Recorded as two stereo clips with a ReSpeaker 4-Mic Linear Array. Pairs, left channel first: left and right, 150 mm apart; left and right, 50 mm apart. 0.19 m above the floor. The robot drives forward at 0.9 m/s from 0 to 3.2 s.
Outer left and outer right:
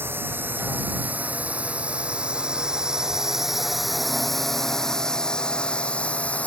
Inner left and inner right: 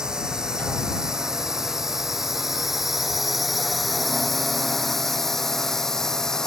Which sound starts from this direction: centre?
A drone, at 0.0 s.